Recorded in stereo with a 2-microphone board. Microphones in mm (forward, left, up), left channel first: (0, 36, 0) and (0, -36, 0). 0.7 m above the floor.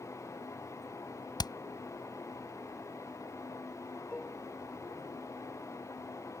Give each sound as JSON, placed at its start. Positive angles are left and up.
{"t": 1.4, "sound": "hammering", "side_deg": 75}
{"t": 4.1, "sound": "dishes clattering", "side_deg": 20}